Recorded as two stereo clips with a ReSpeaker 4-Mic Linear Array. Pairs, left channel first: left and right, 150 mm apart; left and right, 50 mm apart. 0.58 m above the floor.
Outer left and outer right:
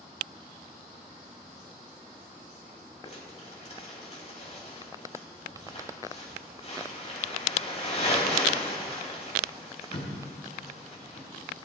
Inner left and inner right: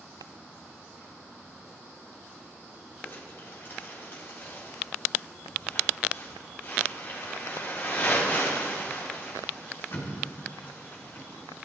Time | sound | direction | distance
3.0 | crumpling | 45° left (ahead or behind) | 3.5 m